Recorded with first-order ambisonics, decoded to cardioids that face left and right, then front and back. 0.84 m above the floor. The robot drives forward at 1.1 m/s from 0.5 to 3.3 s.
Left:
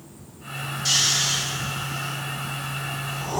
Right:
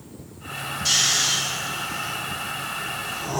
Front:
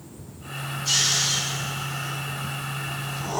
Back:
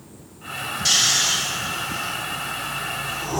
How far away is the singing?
I don't hear singing.